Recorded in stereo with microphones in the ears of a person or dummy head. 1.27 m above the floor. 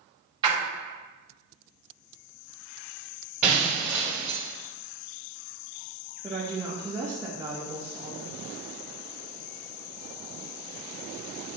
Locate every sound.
0.4 s a splash: 30° right (ahead or behind), 1.3 m
3.4 s breaking glass: 15° right (ahead or behind), 1.7 m
6.2 s a woman speaking: 15° right (ahead or behind), 1.0 m